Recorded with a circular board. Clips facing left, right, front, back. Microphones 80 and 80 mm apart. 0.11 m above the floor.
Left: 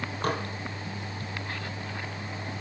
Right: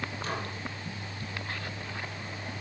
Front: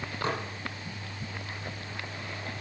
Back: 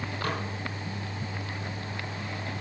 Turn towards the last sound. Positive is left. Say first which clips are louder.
# left 7 dB, front 1 dB
turn(degrees=65)